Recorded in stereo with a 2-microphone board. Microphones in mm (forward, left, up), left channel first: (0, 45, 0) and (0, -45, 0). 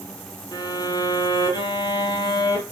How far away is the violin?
About 1.1 m.